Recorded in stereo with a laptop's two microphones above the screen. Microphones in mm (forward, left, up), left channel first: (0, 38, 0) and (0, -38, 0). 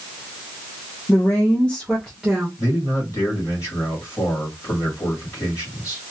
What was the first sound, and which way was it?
A woman speaking, 35° left (ahead or behind).